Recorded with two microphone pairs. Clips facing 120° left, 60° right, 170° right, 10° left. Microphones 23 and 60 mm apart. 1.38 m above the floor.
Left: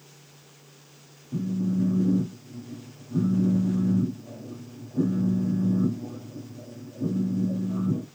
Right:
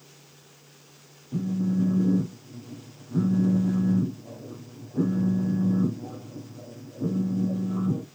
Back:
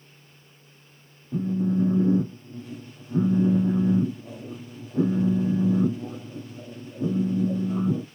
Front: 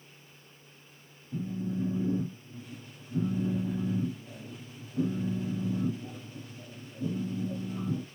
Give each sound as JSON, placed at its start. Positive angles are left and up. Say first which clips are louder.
{"t": 1.3, "sound": "a phone buzzing", "louder": "right 1 dB, back 9 dB", "azimuth_deg": -130, "distance_m": 0.6}